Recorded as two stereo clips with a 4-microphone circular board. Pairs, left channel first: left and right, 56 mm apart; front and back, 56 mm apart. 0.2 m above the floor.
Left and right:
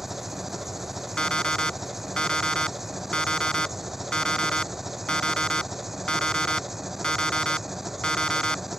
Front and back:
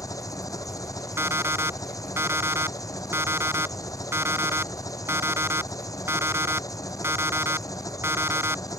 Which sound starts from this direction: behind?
An alarm clock, at 1.2 s.